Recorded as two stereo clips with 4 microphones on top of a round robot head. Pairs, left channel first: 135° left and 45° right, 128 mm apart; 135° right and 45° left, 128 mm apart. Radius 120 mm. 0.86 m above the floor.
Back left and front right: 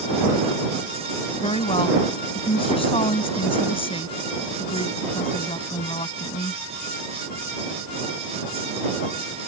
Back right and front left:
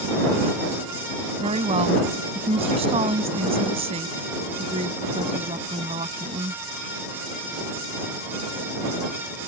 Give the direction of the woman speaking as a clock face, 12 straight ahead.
9 o'clock.